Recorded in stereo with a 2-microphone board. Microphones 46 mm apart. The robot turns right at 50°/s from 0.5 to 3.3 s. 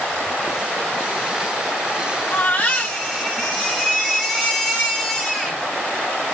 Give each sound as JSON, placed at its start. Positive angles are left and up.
{"t": 2.3, "sound": "a baby crying", "azimuth_deg": 135, "distance_m": 9.5}